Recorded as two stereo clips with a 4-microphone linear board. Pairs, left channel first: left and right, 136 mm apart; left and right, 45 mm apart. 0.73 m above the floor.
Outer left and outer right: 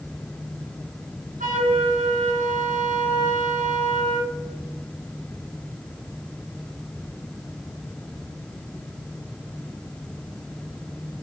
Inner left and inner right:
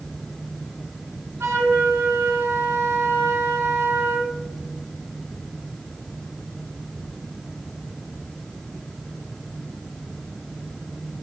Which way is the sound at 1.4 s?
80° right.